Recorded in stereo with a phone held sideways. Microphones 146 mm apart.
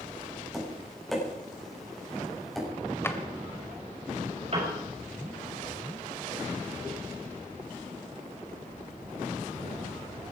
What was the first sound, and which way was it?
Tapping, centre (ahead or behind).